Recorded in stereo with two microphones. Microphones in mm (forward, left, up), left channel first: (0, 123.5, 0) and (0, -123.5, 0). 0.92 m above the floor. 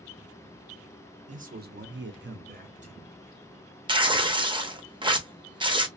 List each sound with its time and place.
1.3 s a man speaking: 30° right (ahead or behind), 0.7 m; by 3.0 s 25° right (ahead or behind), 0.9 m
3.9 s tearing paper: 20° right (ahead or behind), 0.5 m